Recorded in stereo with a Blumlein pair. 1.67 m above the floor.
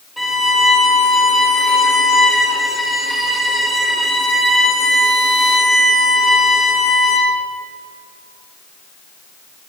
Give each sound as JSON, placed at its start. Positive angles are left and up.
{"t": 0.2, "sound": "a violin", "azimuth_deg": 0, "distance_m": 3.5}